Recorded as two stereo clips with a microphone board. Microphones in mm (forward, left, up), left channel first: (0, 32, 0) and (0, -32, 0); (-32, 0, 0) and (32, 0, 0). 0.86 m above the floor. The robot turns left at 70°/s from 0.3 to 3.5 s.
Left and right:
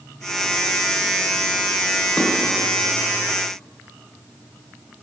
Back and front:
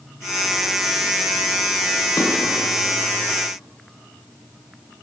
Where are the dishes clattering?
165° left, 1.5 m; by 2.3 s 160° left, 1.5 m.